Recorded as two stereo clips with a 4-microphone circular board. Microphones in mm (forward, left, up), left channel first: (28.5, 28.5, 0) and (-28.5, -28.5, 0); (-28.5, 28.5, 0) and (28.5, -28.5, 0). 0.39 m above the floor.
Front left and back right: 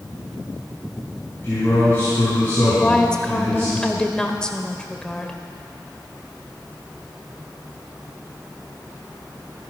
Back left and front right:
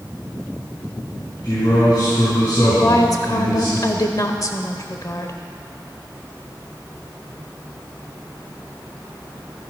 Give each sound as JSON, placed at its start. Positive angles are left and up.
{"t": 1.4, "sound": "a man speaking", "azimuth_deg": 105, "distance_m": 4.0}
{"t": 2.8, "sound": "a woman speaking", "azimuth_deg": 120, "distance_m": 1.1}